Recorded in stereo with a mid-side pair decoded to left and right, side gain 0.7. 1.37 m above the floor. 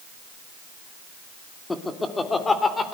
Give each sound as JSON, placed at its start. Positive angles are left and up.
{"t": 1.7, "sound": "laughter", "azimuth_deg": 15, "distance_m": 2.5}